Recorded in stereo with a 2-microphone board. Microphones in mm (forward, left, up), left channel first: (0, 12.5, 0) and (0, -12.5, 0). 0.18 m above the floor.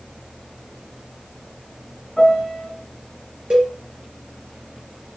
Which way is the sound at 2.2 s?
20° left (ahead or behind).